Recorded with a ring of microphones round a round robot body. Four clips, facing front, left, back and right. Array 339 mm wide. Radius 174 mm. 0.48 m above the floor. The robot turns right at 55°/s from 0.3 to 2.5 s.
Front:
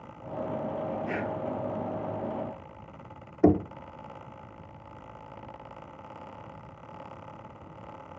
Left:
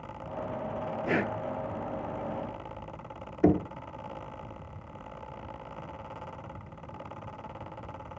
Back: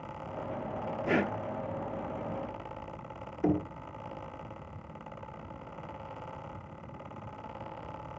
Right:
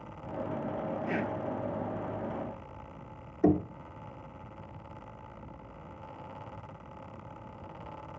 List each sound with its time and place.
1.1 s breathing: 135° left, 0.7 m; by 1.4 s 150° left, 0.7 m
3.4 s knocking: 20° left, 0.9 m